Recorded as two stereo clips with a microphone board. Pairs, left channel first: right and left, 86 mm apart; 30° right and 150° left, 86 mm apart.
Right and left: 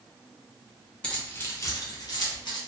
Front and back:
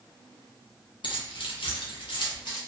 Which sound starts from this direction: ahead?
Keys jangling, at 1.0 s.